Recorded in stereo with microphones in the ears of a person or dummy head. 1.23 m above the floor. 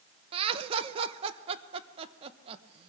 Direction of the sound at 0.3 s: 30° right (ahead or behind).